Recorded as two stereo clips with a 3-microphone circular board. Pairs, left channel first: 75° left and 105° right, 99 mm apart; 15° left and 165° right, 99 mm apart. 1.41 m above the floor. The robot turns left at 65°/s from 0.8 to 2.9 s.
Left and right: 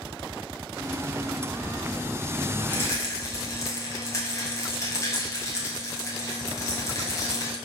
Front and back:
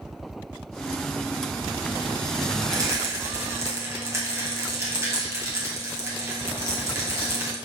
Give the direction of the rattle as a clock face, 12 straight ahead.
7 o'clock.